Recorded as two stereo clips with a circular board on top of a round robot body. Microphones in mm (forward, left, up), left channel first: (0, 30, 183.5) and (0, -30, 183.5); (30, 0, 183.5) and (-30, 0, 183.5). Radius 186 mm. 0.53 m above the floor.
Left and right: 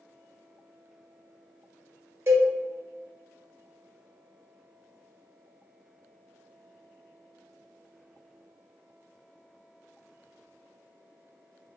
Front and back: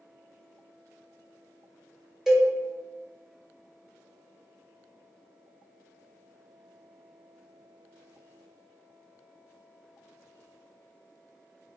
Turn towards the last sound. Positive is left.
turn(degrees=-95)